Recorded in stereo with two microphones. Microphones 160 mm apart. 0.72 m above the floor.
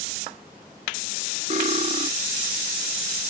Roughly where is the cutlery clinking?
Right.